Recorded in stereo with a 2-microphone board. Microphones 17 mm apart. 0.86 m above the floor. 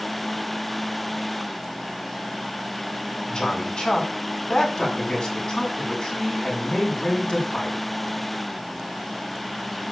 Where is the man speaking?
60° left (ahead or behind), 6 m.